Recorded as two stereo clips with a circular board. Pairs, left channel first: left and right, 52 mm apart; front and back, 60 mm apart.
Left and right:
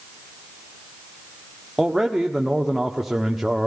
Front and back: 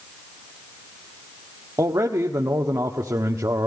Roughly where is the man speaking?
Behind.